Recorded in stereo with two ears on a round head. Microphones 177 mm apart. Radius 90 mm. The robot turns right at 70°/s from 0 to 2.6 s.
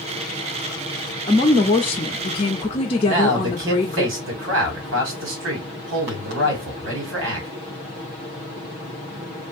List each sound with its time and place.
1.3 s a woman speaking: 25° left, 0.7 m; by 4.0 s 115° left, 0.7 m
3.0 s a man speaking: 75° right (ahead or behind), 1.8 m